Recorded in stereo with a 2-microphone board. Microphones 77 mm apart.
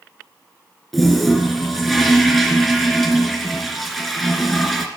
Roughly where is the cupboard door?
No cupboard door in this recording.